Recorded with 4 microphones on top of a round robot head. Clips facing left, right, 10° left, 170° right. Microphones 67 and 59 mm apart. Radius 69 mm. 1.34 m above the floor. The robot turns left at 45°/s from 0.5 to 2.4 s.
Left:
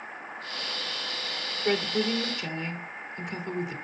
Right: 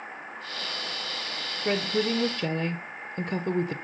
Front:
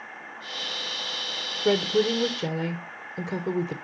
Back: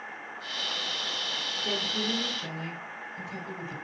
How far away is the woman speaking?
About 0.8 m.